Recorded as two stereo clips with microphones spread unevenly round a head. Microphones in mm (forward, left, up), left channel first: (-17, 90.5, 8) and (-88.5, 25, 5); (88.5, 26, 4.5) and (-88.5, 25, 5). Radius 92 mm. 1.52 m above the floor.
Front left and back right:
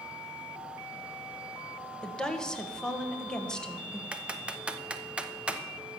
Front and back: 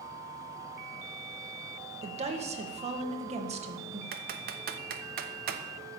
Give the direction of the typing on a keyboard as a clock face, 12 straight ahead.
7 o'clock.